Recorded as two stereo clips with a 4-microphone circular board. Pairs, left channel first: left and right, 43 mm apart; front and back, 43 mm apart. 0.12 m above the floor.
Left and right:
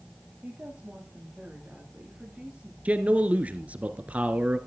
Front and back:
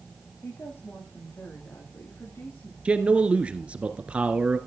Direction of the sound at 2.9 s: 130° right.